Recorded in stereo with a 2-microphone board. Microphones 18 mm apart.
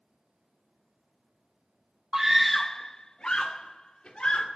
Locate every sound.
2.1 s a scream: 25° right (ahead or behind), 0.7 m; by 4.5 s 60° left (ahead or behind), 2.5 m